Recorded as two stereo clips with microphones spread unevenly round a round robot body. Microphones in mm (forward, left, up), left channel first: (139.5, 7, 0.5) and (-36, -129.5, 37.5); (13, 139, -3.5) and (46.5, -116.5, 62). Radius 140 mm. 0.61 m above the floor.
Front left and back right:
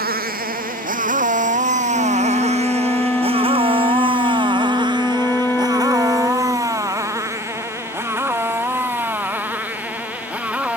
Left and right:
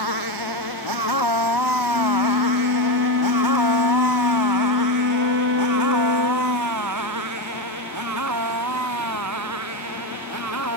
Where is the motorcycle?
95° right; by 10.8 s 55° right.